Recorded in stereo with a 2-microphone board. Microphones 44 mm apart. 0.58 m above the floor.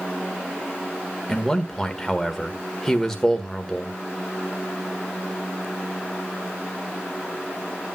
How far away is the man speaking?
About 1.5 m.